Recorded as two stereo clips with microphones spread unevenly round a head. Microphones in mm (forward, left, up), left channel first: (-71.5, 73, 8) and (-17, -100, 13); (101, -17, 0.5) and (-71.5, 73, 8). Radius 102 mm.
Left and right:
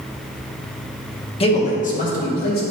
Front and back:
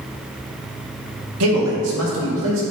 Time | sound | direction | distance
1.4 | a man speaking | 165° left | 1.3 m